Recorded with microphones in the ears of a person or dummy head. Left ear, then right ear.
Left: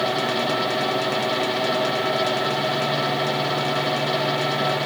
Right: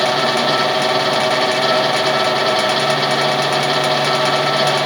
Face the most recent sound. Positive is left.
No sound to turn to.